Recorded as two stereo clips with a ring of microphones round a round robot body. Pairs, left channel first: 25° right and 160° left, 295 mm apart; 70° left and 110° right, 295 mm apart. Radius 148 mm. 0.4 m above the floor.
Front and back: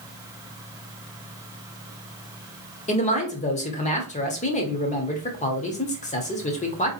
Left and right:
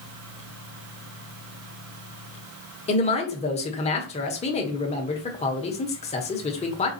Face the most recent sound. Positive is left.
turn(degrees=20)